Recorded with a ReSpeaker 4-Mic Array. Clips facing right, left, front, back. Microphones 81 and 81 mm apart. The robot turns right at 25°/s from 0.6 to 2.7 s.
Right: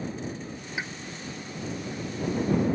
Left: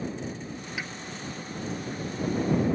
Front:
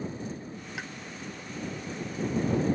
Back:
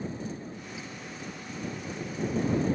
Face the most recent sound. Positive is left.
turn(degrees=20)